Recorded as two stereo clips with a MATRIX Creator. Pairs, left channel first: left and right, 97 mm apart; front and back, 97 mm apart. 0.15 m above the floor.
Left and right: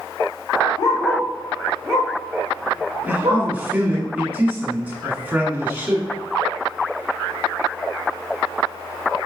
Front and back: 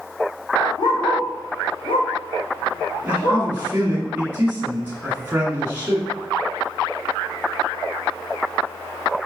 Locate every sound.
0.8 s a dog barking: 40° left, 1.9 m; by 3.5 s 45° right, 1.8 m
3.0 s a man speaking: 150° right, 1.7 m